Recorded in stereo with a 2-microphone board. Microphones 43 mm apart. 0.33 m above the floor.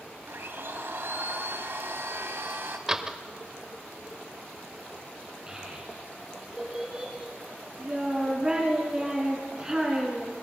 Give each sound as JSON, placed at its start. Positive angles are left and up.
{"t": 0.3, "sound": "a blender", "side_deg": -65, "distance_m": 1.1}
{"t": 2.9, "sound": "a door slam", "side_deg": -15, "distance_m": 0.6}
{"t": 5.5, "sound": "a child speaking", "side_deg": -15, "distance_m": 3.0}